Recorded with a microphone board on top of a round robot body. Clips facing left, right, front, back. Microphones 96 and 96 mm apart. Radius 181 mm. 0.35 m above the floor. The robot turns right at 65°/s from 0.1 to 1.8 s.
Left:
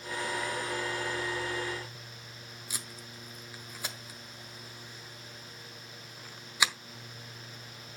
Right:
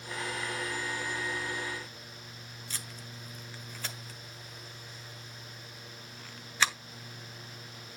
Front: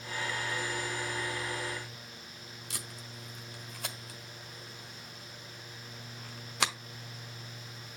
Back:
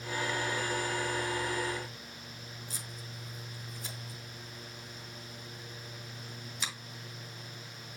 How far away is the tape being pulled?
About 1.3 m.